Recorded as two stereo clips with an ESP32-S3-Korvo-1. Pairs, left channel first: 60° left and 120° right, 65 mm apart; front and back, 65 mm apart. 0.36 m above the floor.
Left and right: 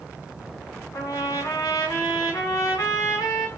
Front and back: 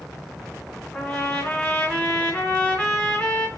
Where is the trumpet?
65° left, 1.2 m.